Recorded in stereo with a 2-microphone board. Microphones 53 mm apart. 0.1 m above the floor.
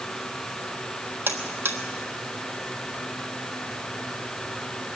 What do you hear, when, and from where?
1.3 s a buzzer: 45° right (ahead or behind), 1.1 m